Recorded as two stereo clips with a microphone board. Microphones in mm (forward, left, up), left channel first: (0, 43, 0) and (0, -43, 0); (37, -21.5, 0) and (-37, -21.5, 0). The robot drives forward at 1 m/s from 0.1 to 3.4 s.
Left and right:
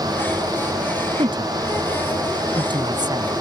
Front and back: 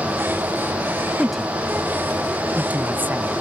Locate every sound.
1.2 s a woman speaking: 85° right; by 3.3 s 120° right